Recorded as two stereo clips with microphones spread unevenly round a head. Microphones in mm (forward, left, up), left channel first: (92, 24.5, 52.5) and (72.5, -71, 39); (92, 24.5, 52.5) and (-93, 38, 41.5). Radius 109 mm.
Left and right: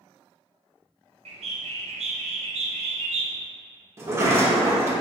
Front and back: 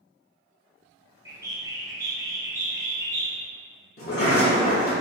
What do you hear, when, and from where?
1.2 s a bird: 105° right, 0.5 m
4.0 s a sliding door: 40° right, 0.7 m